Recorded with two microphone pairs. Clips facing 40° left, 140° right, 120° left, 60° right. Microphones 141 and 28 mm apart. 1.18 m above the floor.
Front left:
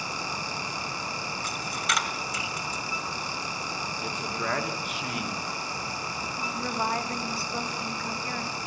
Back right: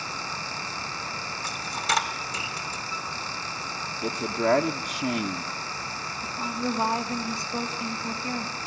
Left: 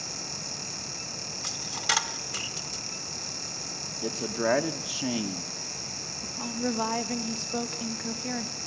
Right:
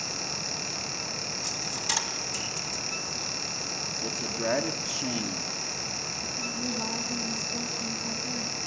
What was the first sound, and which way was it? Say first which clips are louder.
A dropped coin: back right 4 dB, left 5 dB; 165° left.